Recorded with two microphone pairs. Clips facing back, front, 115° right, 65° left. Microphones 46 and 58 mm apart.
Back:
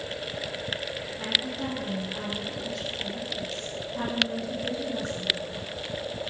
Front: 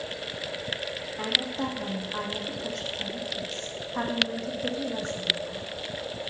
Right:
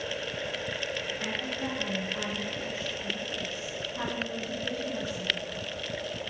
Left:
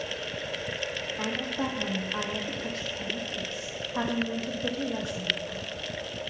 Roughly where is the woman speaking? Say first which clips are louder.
Front 1 dB, left 2 dB; ahead left.